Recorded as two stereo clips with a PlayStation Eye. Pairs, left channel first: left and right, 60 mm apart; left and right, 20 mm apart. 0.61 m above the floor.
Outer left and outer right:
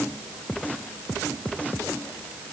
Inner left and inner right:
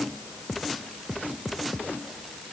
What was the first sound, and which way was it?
Only background noise.